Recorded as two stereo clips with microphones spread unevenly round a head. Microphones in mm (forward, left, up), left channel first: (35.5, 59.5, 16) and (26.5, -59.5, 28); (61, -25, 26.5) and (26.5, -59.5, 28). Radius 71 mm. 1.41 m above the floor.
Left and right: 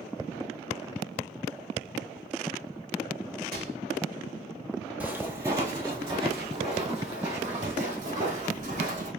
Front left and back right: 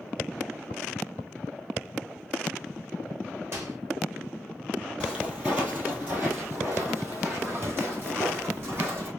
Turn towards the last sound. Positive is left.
turn(degrees=-105)